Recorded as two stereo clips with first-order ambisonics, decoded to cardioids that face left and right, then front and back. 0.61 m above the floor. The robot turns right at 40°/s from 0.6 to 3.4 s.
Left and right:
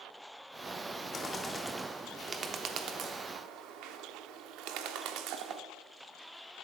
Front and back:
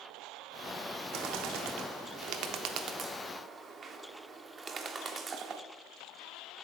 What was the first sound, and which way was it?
A bird, 155° left.